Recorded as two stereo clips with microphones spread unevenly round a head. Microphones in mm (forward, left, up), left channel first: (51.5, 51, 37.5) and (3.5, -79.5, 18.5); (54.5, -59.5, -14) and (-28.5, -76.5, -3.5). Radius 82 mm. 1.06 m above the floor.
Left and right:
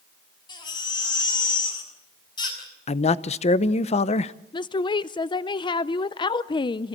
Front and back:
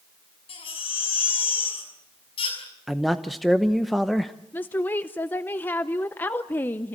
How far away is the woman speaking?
About 0.5 m.